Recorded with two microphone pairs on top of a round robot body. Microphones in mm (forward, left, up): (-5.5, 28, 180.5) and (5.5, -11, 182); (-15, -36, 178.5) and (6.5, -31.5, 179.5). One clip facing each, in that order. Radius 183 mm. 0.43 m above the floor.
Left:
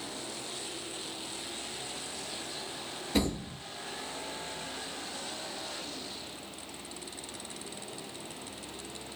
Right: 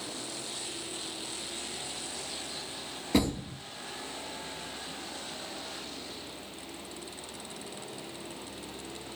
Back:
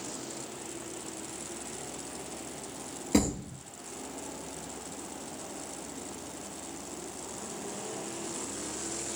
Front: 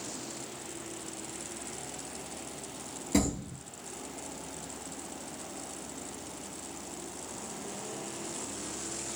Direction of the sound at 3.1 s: 100° right.